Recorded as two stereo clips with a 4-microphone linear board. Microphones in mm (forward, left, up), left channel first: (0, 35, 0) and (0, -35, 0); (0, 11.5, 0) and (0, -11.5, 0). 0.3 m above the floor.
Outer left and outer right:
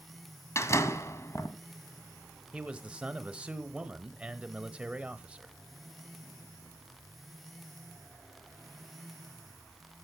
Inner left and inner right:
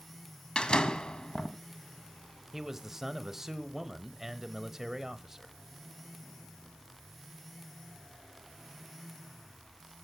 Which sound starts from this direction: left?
A door slam, at 0.6 s.